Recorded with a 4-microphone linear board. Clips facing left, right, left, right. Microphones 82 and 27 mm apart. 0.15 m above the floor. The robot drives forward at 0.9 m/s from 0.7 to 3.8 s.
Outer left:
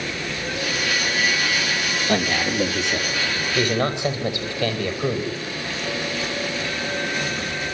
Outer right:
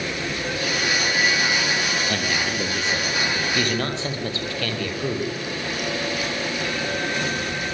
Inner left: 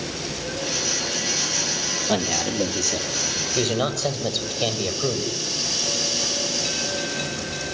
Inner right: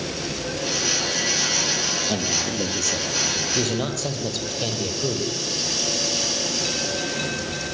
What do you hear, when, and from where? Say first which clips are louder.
2.1 s a man speaking: outer left 3 dB, inner left 1 dB; 20° left (ahead or behind), 4 m; by 5.3 s 15° left (ahead or behind), 5.5 m